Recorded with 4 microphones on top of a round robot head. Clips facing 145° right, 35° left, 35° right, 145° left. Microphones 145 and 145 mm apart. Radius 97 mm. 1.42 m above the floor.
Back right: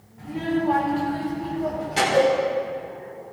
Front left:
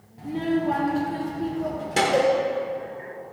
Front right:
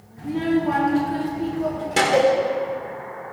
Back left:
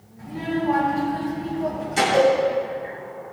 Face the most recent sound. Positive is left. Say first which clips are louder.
# back right 2 dB, even
turn(degrees=-5)